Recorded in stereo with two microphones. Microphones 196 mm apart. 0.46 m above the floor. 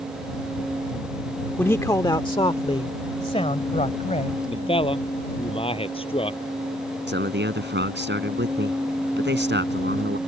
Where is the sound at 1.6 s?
10° left (ahead or behind); by 4.4 s 35° left (ahead or behind).